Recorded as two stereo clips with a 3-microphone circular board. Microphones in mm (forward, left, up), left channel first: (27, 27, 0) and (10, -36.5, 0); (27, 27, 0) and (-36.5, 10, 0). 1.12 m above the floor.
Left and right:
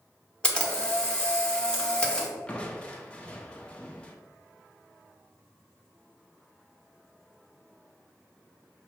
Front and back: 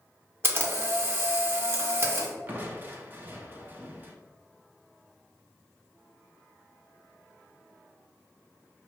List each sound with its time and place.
0.4 s a camera shutter: 150° left, 0.8 m
2.5 s crushing: 145° left, 0.5 m